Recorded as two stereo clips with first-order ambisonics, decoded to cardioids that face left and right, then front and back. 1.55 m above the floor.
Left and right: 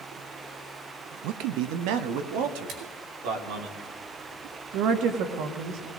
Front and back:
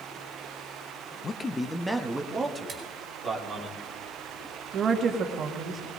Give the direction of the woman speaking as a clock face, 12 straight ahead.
4 o'clock.